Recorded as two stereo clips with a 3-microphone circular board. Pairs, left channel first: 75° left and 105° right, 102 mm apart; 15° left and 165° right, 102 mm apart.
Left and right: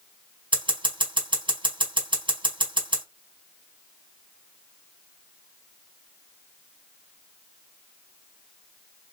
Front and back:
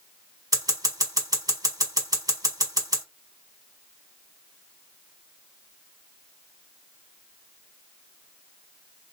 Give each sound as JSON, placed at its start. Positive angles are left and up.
{"t": 0.5, "sound": "scissors", "azimuth_deg": -120, "distance_m": 2.0}